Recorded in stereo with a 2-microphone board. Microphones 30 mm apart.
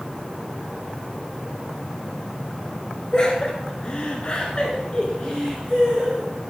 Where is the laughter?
30° left (ahead or behind), 2.5 m; by 6.3 s 20° left (ahead or behind), 3 m.